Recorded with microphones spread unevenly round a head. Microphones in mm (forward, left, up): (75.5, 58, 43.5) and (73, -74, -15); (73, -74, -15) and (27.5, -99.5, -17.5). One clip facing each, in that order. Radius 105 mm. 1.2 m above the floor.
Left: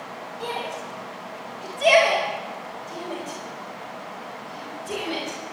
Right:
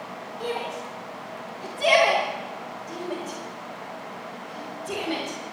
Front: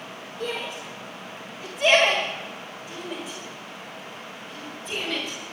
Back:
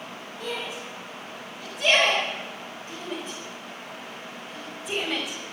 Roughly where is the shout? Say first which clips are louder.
Right 1 dB, front 2 dB; ahead.